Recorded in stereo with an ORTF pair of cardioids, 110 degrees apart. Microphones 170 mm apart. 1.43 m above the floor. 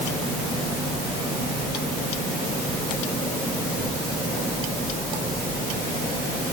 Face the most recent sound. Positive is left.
No sound to turn to.